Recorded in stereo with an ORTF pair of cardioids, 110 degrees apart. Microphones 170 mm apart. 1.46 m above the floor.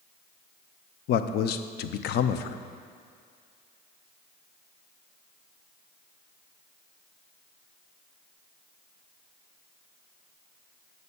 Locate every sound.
1.1 s a man speaking: 70° left, 0.6 m